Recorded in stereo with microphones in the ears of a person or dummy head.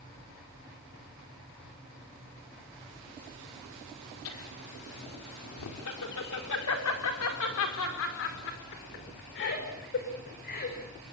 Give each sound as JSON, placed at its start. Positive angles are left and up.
{"t": 4.2, "sound": "laughter", "side_deg": 75, "distance_m": 4.5}